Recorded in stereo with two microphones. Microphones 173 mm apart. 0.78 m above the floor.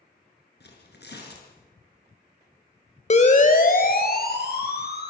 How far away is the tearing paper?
About 6.5 m.